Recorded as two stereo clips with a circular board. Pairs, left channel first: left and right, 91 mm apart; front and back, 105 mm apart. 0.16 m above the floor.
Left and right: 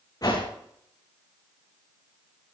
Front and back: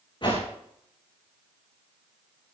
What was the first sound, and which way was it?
A whoosh, 45° left.